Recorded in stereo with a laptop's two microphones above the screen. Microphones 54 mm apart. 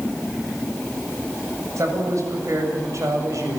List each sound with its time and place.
1.8 s a man speaking: 65° right (ahead or behind), 7 m